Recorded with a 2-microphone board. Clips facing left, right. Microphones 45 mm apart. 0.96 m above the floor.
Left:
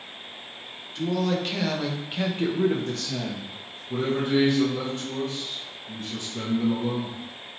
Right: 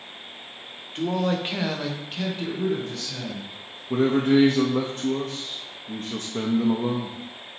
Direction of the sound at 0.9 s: 40° right (ahead or behind).